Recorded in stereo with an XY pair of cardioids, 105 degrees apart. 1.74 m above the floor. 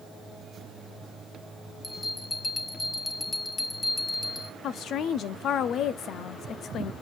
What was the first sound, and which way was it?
A bell, 25° left.